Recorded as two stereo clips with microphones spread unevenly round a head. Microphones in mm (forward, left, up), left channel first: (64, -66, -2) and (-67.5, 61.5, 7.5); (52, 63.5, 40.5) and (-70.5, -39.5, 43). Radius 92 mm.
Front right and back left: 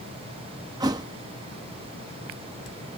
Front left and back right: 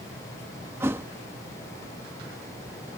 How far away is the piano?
I don't hear a piano.